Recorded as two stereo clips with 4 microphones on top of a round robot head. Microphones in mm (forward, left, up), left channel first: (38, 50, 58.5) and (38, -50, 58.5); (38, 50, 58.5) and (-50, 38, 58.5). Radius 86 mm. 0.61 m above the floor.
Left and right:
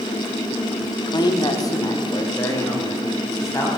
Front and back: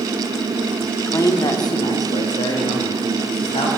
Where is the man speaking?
60° left, 1.3 m; by 3.7 s 30° left, 4.5 m.